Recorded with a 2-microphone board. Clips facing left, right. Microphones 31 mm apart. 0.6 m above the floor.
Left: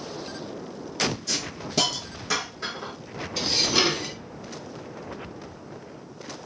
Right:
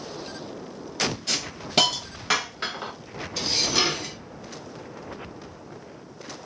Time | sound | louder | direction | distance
1.3 | a hiss | right 1 dB | 55° right (ahead or behind) | 0.6 m
3.4 | dishes clattering | left 1 dB | 10° left (ahead or behind) | 0.5 m